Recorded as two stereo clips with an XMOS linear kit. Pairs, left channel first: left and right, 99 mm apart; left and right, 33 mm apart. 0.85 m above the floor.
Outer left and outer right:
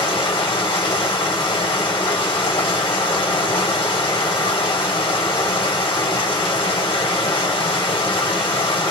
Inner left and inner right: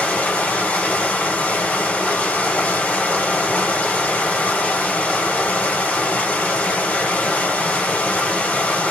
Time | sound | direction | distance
0.0 | running water | 60° left (ahead or behind) | 1.4 m